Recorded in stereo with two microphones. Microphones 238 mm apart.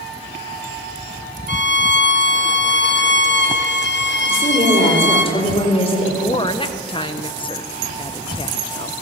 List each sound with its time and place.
1.5 s a violin: 50° left (ahead or behind), 1.0 m
4.2 s a woman speaking: 25° left (ahead or behind), 5 m
6.2 s a woman speaking: 20° left (ahead or behind), 1.0 m